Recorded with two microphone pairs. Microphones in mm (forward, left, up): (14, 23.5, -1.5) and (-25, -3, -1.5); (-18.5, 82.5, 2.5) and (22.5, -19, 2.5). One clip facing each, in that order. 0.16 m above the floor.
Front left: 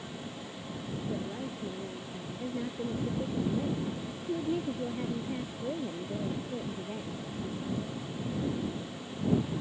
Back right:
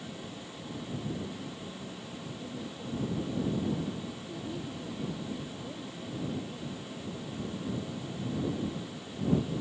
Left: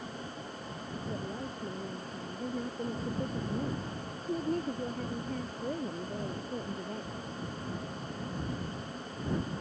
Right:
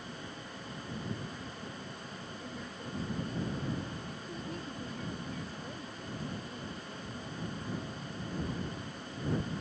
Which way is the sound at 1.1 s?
75° left.